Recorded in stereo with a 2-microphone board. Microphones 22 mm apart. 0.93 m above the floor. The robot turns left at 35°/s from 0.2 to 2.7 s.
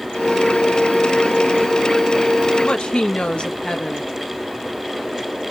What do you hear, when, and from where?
2.6 s a woman speaking: 60° left (ahead or behind), 0.9 m